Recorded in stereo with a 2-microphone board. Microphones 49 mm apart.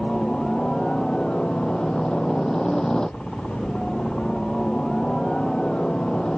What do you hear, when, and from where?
0.0 s a helicopter: 15° left (ahead or behind)